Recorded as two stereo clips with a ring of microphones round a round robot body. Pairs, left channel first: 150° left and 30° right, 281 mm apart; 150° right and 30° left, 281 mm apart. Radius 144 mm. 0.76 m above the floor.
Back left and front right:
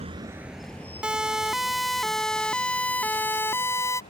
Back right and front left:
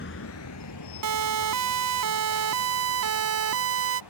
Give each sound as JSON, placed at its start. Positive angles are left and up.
{"t": 0.0, "sound": "a vehicle", "azimuth_deg": -100}
{"t": 1.0, "sound": "a siren", "azimuth_deg": 55}